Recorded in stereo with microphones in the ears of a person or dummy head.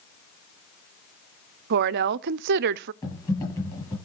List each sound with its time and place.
1.7 s a woman speaking: 55° right (ahead or behind), 0.6 m
3.0 s typing on a keyboard: 20° left (ahead or behind), 9 m